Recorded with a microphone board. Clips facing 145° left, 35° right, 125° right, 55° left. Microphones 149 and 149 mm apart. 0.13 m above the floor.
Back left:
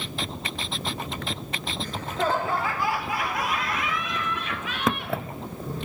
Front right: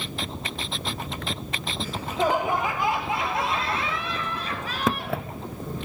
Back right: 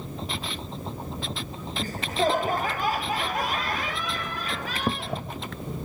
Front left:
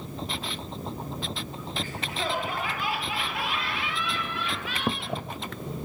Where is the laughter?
115° right, 1.7 m; by 5.2 s 80° right, 3 m.